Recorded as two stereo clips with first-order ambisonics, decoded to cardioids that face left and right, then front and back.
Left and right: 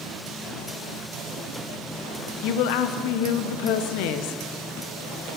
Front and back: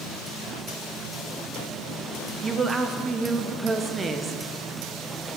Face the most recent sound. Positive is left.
turn(degrees=105)